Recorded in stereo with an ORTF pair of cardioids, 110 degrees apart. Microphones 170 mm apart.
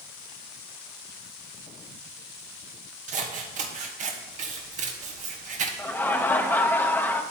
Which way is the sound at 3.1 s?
50° right.